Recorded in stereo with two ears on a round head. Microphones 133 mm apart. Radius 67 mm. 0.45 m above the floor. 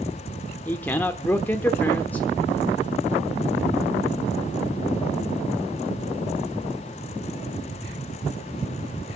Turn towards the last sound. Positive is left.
turn(degrees=10)  # may be behind; listen again after turning